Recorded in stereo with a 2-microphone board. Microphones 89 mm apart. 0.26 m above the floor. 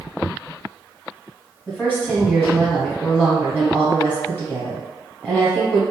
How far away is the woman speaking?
About 1.2 m.